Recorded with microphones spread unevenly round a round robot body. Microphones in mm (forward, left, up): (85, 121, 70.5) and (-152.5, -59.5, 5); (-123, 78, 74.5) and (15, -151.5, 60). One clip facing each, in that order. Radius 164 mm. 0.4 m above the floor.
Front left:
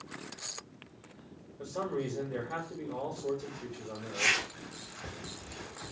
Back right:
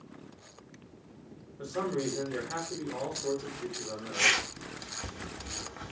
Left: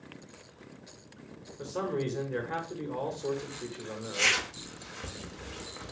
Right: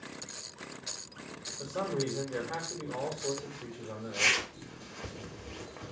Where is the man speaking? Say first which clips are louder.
Back right 3 dB, left 1 dB; 165° left, 1.4 m.